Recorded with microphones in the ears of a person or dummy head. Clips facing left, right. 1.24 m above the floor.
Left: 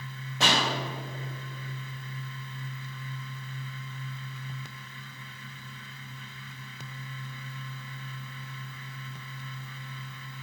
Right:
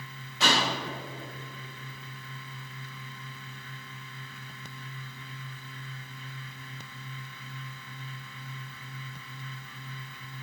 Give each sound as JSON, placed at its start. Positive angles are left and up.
{"t": 0.4, "sound": "a pop", "side_deg": 40, "distance_m": 3.5}